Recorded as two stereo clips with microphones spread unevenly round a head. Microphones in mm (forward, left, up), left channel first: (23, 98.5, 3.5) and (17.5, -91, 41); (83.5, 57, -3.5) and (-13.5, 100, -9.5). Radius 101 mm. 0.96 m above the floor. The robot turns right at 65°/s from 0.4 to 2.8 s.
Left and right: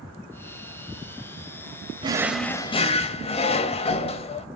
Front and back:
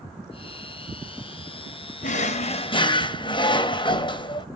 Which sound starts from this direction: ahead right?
A drawer, at 2.0 s.